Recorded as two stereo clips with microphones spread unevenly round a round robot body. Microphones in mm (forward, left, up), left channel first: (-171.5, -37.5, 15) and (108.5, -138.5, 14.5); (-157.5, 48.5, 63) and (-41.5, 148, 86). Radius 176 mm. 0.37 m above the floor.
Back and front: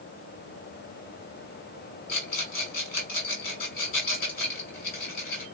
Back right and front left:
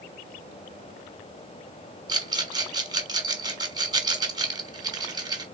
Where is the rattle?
105° left, 1.6 m.